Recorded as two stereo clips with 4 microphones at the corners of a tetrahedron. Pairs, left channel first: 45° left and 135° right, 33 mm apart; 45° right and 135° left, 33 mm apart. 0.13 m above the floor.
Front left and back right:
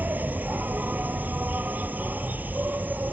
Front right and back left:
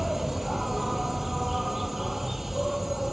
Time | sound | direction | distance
0.0 | an insect | 140° right | ?